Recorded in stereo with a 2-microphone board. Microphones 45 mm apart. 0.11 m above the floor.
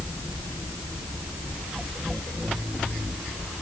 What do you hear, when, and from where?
Only background noise.